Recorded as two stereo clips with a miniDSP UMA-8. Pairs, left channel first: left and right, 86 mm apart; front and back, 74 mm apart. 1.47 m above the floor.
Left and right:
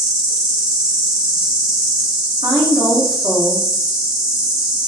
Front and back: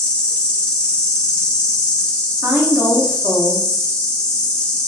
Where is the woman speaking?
115° right, 0.6 m.